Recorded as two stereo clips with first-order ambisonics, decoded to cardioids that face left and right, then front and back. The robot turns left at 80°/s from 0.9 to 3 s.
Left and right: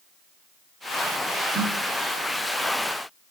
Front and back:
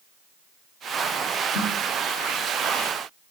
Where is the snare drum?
15° right, 3 m; by 1.7 s 30° right, 3 m.